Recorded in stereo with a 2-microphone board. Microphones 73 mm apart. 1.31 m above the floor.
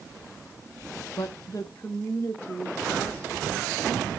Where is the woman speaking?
70° left (ahead or behind), 0.6 m; by 3.9 s 25° left (ahead or behind), 3 m.